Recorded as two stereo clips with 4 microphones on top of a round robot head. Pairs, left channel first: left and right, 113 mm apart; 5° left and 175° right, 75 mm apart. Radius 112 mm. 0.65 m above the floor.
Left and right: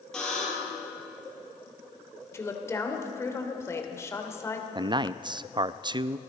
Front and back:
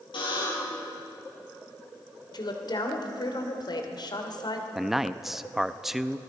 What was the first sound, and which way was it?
A buzzer, 5° left.